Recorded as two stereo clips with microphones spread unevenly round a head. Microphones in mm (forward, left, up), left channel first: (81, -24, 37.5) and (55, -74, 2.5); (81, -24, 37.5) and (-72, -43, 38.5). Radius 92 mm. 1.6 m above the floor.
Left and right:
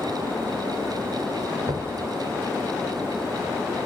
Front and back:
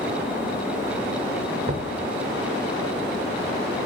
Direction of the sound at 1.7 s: 150° right.